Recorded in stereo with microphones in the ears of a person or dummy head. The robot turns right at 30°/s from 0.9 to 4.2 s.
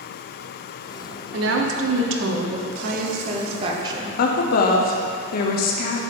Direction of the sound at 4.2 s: 55° left (ahead or behind).